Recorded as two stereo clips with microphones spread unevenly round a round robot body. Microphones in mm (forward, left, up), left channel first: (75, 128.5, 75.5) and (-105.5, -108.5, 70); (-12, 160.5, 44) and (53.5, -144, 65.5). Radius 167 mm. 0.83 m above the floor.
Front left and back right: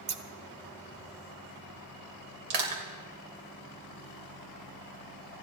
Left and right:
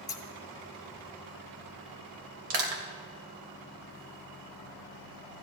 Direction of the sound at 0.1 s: 175° right.